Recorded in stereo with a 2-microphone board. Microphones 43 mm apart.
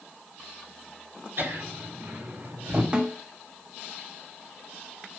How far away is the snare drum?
About 2 m.